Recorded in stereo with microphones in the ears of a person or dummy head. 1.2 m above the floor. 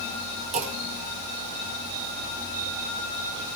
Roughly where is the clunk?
Right.